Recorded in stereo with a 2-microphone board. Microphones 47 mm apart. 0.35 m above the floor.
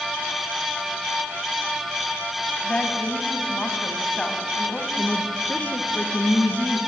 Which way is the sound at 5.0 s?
35° left (ahead or behind).